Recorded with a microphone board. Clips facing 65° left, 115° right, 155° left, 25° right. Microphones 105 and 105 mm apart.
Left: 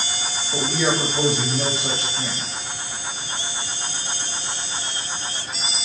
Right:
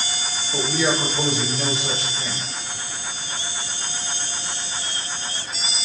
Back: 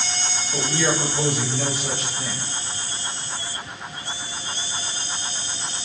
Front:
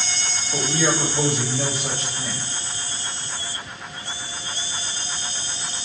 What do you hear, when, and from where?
0.5 s a man speaking: 25° left, 1.5 m